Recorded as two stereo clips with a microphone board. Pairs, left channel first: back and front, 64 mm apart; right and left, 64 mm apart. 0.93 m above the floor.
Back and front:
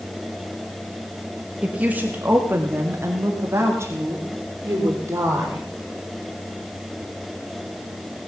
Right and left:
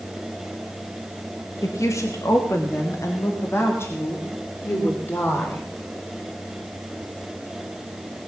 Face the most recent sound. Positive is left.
turn(degrees=-35)